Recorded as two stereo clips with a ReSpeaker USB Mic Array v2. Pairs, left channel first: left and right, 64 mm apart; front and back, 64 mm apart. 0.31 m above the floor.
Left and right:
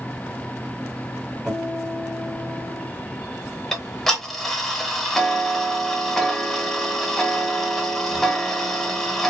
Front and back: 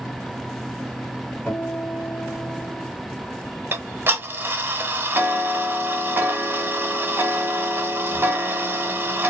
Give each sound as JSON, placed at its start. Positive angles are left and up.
{"t": 1.5, "sound": "a guitar", "azimuth_deg": -25, "distance_m": 1.6}
{"t": 3.7, "sound": "ticking", "azimuth_deg": 170, "distance_m": 1.0}